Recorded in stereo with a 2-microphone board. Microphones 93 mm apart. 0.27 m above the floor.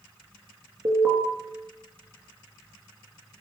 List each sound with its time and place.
0.8 s an alarm: 30° right (ahead or behind), 3.5 m